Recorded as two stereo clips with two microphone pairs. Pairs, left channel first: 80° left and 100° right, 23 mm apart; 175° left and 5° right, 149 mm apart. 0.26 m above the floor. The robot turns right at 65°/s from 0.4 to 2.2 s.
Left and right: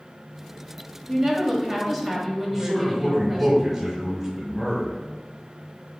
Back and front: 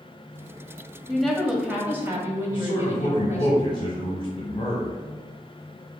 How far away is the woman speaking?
About 1.1 m.